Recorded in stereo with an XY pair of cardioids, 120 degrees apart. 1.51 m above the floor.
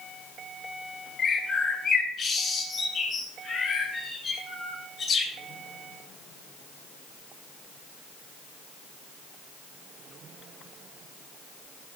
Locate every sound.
1.2 s a bird: 40° left, 5 m